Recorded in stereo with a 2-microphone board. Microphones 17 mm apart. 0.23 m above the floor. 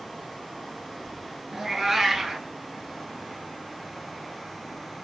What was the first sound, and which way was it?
A cat meowing, 15° right (ahead or behind).